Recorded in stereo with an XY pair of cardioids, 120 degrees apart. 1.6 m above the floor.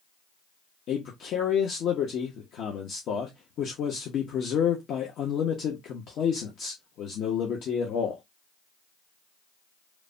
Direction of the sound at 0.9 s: 65° left.